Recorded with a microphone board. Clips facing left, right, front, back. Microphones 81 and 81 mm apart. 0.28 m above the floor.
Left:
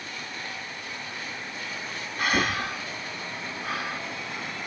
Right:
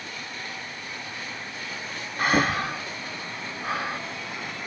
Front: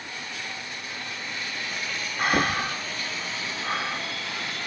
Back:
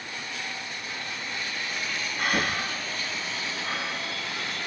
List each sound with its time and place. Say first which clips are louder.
2.2 s breathing: right 3 dB, front 4 dB; 45° right, 0.8 m